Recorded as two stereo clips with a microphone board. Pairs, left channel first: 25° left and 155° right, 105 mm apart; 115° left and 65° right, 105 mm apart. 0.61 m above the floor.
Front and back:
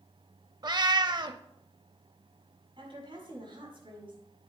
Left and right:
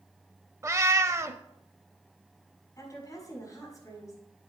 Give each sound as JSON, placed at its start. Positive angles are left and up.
{"t": 0.6, "sound": "a cat meowing", "azimuth_deg": -120, "distance_m": 0.5}
{"t": 2.8, "sound": "a woman speaking", "azimuth_deg": 175, "distance_m": 4.5}